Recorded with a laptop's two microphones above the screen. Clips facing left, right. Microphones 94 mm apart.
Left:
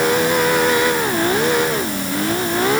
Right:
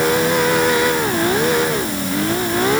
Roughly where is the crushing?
I don't hear crushing.